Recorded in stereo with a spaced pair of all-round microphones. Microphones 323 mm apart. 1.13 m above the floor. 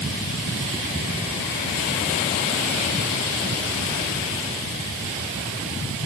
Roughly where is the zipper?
I don't hear a zipper.